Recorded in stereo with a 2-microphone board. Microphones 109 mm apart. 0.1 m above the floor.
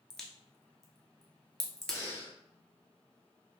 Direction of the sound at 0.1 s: 5° left (ahead or behind).